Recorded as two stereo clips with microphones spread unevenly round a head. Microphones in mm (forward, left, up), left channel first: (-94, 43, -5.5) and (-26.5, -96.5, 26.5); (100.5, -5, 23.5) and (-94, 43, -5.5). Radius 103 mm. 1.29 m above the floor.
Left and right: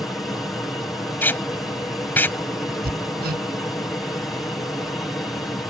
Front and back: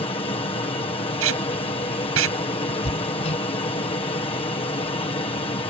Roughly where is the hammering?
Right.